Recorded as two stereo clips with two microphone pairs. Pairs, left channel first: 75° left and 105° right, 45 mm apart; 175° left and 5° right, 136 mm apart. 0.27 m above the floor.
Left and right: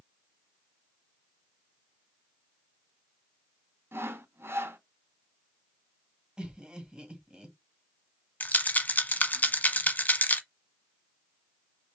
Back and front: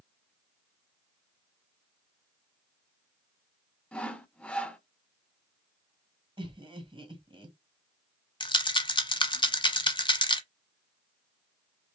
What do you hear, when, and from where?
3.9 s sawing: 100° right, 0.9 m
6.4 s laughter: 40° right, 1.6 m
8.4 s a rattle: 125° left, 0.8 m